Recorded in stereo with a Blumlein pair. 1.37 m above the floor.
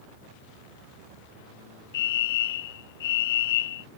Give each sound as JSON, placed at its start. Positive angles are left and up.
{"t": 1.9, "sound": "a fire alarm", "azimuth_deg": 55}